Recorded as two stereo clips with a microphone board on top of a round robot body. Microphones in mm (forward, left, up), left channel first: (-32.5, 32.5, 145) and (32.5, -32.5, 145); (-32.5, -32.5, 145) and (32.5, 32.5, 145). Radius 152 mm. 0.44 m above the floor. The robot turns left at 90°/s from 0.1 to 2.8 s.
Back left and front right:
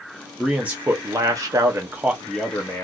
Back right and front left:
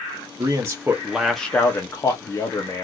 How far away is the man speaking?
About 1.6 m.